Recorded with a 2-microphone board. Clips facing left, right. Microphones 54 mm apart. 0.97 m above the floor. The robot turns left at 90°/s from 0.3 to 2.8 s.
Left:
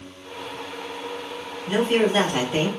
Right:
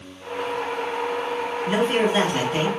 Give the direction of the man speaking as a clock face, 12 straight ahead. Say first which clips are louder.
Left 1 dB; 4 o'clock.